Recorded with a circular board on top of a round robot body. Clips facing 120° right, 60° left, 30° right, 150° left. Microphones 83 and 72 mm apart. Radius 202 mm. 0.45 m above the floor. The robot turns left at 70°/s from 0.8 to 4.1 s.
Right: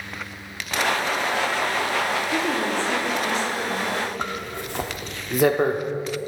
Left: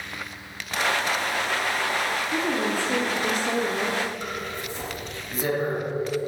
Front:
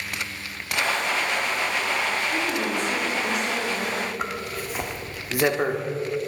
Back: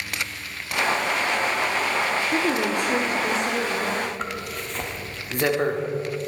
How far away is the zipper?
About 1.5 m.